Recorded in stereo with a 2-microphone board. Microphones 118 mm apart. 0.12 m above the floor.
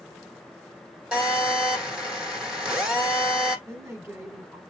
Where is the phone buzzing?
10° right (ahead or behind), 5.5 m.